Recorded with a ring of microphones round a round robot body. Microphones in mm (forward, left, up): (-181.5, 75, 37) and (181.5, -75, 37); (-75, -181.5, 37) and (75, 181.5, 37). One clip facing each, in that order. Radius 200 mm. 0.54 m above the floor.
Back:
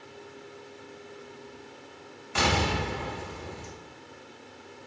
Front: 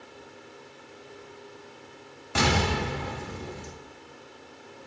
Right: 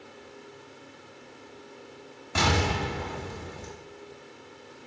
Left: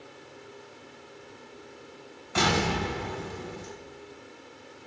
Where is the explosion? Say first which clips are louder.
Front 2 dB, left 1 dB; 60° right, 3.5 m.